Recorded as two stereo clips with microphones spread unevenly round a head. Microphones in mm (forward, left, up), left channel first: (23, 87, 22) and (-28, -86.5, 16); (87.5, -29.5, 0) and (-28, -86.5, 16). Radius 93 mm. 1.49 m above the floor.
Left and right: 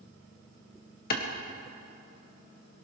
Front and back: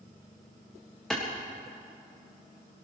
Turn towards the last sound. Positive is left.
turn(degrees=115)